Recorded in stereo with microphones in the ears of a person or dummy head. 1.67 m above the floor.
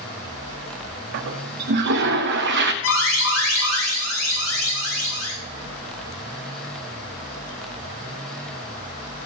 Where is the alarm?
80° left, 6 m.